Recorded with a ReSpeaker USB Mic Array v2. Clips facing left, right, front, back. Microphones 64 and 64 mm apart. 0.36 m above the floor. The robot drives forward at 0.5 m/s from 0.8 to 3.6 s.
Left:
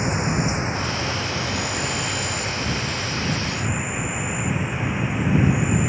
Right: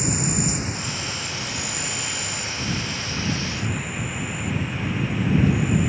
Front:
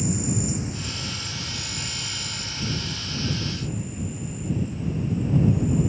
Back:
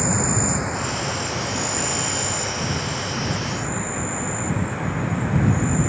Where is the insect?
150° left; by 5.9 s 160° left.